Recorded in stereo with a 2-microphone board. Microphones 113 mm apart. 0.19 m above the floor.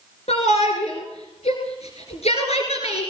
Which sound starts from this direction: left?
A shout, at 0.3 s.